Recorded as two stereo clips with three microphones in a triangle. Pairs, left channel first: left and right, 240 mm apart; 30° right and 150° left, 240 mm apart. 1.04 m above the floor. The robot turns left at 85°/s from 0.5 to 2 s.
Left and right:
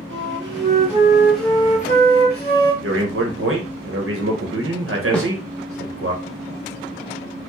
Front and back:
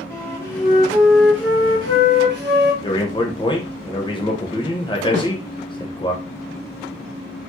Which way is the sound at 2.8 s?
100° right.